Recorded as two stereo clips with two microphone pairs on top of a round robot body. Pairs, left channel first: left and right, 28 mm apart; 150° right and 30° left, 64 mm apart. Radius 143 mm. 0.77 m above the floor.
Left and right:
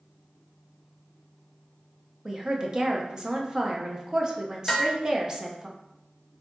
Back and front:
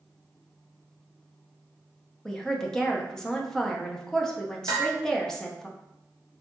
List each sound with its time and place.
2.2 s a woman speaking: 115° right, 0.6 m
4.7 s dishes clattering: 15° left, 0.8 m